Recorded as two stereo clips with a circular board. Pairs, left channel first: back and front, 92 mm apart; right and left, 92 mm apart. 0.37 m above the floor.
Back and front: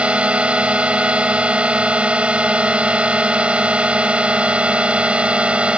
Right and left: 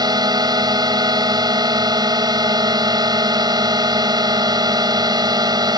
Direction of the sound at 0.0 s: 75° left.